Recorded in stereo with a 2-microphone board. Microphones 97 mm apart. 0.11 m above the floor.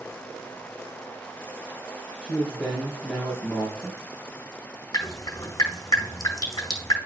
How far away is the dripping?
About 2 m.